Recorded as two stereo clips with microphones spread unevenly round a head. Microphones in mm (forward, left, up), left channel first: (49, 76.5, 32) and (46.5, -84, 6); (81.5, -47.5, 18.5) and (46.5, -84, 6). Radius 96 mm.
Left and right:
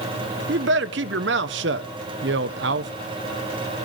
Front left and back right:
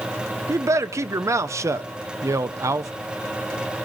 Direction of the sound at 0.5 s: 110° right.